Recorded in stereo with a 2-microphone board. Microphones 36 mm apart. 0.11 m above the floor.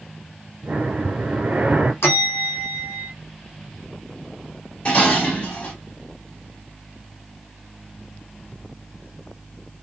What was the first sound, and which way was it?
Breathing, 35° right (ahead or behind).